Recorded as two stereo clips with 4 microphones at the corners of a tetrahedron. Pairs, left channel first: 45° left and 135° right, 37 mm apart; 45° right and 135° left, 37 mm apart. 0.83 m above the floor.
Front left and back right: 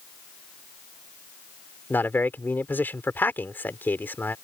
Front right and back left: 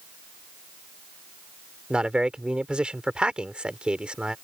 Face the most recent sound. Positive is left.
turn(degrees=70)